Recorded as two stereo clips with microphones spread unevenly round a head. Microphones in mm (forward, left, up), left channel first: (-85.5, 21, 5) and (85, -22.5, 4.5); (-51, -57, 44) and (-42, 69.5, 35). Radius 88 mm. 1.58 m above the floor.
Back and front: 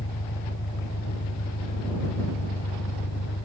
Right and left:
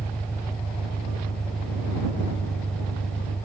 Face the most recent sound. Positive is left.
turn(degrees=-175)